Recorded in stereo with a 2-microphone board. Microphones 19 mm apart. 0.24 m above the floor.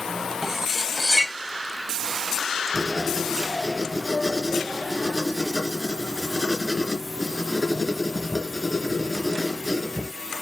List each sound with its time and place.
0.4 s cutlery clinking: 20° right (ahead or behind), 0.6 m
2.7 s writing: 10° right (ahead or behind), 3 m